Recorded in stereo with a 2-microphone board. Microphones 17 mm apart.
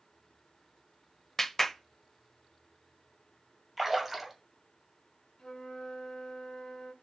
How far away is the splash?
About 2 m.